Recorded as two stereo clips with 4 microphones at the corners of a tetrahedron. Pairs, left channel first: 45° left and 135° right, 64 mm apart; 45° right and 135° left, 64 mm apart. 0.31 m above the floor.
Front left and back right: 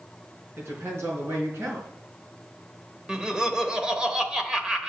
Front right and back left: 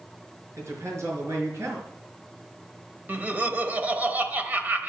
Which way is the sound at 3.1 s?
160° left.